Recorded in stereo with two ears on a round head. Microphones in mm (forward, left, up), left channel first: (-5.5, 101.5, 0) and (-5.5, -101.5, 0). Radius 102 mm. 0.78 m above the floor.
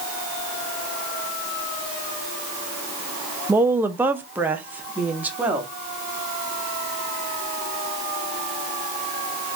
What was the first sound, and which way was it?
A woman speaking, 10° right (ahead or behind).